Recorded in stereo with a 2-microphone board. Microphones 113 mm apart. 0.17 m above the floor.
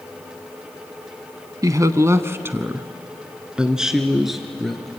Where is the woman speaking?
30° right (ahead or behind), 1.1 m; by 4.9 s centre (ahead or behind), 2.5 m.